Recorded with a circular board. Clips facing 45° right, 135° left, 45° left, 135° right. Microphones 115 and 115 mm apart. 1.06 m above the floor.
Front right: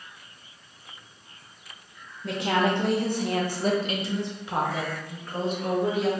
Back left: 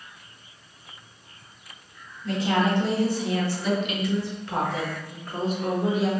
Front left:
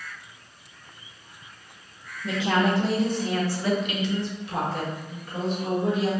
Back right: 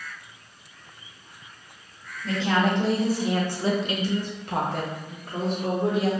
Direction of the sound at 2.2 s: 30° right.